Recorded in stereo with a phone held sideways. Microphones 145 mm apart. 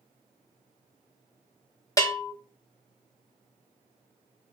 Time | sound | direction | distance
2.0 | a bell | 25° left (ahead or behind) | 0.6 m